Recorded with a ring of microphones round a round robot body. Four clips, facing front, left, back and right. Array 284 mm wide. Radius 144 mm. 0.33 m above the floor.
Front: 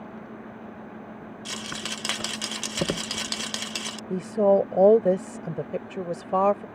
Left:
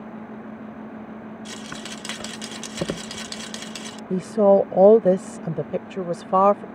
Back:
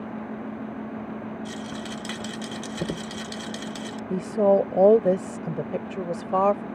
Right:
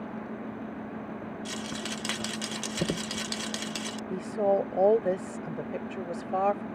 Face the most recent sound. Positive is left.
turn(degrees=90)